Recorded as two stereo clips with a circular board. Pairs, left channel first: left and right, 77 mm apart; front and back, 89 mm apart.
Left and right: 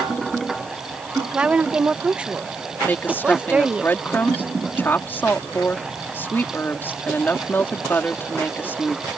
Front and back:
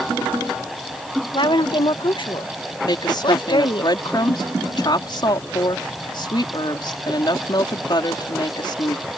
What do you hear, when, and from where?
1.3 s a woman speaking: 15° right
2.8 s a woman speaking: 30° left